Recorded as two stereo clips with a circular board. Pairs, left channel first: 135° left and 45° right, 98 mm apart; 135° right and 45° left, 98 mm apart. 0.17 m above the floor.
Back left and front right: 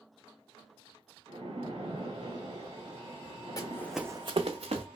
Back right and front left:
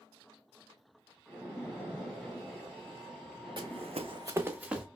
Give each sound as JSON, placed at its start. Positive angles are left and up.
{"t": 1.3, "sound": "a splash", "azimuth_deg": -45, "distance_m": 3.0}
{"t": 3.6, "sound": "running footsteps", "azimuth_deg": 85, "distance_m": 0.9}